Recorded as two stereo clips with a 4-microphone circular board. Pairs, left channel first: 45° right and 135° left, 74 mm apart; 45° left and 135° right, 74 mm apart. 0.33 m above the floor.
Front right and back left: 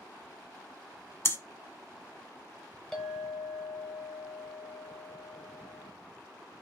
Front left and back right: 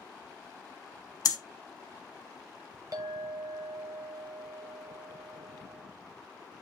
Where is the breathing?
10° left, 0.6 m.